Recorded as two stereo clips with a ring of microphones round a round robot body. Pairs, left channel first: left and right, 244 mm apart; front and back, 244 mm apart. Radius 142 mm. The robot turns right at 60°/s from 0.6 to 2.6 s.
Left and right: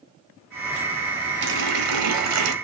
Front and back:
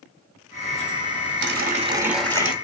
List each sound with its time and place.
1.4 s a running tap: 135° right, 1.7 m; by 2.5 s 70° right, 1.7 m